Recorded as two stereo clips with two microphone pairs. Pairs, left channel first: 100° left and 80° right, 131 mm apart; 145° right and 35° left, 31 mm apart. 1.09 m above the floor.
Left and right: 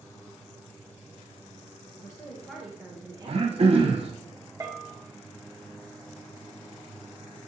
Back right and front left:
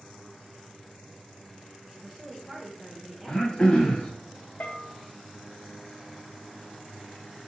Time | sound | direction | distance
1.9 | a woman speaking | 115° left | 0.8 m
3.3 | throat clearing | 90° right | 0.6 m
4.6 | a bell | 135° right | 0.6 m